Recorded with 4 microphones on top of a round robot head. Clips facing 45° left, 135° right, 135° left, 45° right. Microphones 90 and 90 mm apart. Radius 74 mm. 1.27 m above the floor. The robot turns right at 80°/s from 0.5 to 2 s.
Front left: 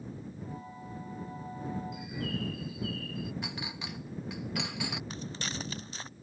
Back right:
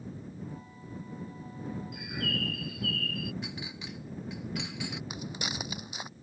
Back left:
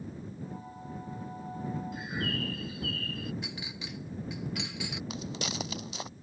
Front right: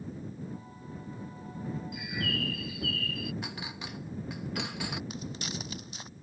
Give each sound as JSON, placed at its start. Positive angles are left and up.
{"t": 1.9, "sound": "a bird", "azimuth_deg": -175}
{"t": 3.4, "sound": "a clink", "azimuth_deg": 5}
{"t": 5.1, "sound": "footsteps", "azimuth_deg": 150}